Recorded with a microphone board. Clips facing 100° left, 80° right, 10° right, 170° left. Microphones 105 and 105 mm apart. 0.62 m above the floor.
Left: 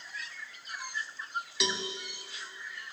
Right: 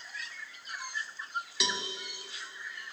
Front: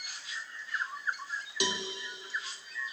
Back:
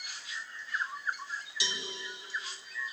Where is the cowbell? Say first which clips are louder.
Left 2 dB, front 9 dB; 10° left, 0.9 m.